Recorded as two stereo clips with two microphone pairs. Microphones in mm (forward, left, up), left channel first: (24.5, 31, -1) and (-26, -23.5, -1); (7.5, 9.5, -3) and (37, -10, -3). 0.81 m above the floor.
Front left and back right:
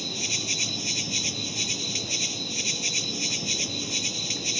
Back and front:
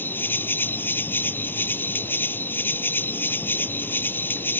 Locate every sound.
0.0 s an insect: 135° left